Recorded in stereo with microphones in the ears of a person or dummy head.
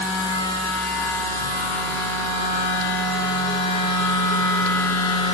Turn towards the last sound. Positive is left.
turn(degrees=20)  # may be behind; listen again after turning